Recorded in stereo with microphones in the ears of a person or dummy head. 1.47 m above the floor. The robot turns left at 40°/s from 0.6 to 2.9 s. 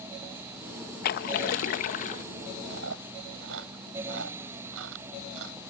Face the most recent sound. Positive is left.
turn(degrees=-85)